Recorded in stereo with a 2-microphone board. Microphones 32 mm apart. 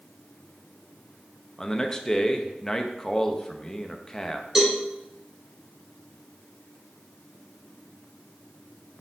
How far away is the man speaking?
About 0.7 m.